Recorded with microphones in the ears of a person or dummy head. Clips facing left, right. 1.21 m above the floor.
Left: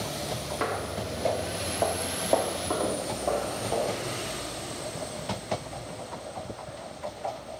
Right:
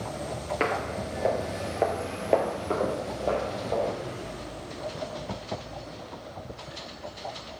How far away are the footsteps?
About 1.4 m.